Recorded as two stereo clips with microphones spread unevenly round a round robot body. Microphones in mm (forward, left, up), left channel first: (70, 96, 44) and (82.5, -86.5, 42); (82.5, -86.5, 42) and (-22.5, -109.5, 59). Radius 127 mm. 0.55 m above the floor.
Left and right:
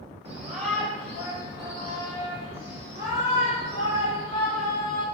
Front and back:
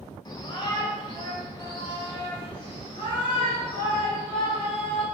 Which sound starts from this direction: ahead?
A shout, at 0.2 s.